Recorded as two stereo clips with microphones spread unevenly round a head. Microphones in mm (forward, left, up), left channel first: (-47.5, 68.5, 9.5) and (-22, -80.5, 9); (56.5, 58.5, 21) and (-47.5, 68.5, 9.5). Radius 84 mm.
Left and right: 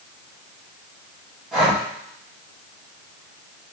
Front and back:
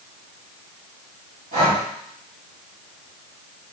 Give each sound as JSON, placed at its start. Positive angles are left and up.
{"t": 1.5, "sound": "breathing", "azimuth_deg": -170, "distance_m": 3.5}